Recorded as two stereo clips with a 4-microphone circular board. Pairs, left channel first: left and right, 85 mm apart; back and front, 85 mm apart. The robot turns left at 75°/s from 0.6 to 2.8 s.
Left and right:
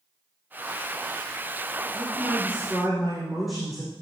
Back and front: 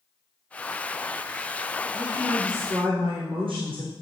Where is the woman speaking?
60° left, 4.5 m; by 3.9 s 5° right, 4.5 m.